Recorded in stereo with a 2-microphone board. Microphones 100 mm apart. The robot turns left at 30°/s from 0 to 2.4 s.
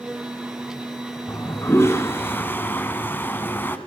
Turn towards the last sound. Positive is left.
turn(degrees=20)  # may be behind; listen again after turning